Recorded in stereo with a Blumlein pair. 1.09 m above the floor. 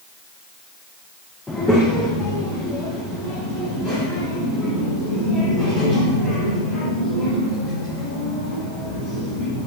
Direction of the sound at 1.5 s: 5° left.